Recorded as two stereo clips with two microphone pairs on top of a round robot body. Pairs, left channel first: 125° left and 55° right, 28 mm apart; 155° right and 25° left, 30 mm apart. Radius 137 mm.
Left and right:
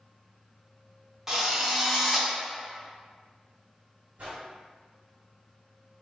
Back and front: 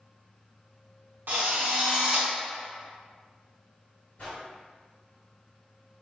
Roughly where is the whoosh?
Right.